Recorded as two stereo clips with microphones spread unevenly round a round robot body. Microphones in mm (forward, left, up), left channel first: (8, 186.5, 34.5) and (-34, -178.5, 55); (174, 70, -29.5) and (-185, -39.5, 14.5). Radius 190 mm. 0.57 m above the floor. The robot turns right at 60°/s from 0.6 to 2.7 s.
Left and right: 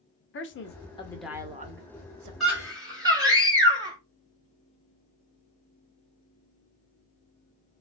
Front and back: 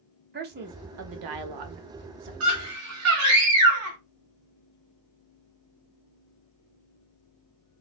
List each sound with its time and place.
0.3 s a man speaking: 135° left, 0.9 m; by 2.3 s 125° right, 0.9 m
2.4 s a scream: 170° left, 1.4 m; by 4.0 s 175° right, 1.4 m